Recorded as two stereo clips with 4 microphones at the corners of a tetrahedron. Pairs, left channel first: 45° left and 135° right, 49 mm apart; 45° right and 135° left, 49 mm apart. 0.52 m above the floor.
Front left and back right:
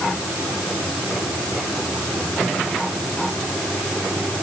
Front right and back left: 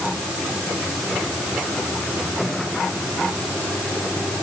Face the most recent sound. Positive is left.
No sound to turn to.